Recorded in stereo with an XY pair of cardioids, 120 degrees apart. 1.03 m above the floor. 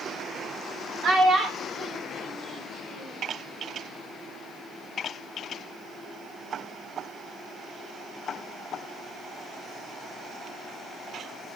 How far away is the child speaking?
About 1.4 m.